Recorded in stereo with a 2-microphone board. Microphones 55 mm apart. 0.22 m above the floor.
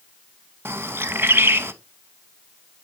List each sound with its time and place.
0.7 s a bird: 40° right (ahead or behind), 0.5 m